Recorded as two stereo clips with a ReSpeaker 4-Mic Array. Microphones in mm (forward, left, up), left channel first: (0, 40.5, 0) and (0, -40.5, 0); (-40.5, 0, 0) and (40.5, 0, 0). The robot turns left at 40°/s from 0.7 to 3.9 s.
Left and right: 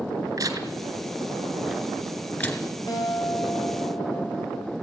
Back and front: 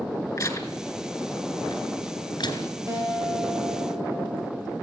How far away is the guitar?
About 7.5 m.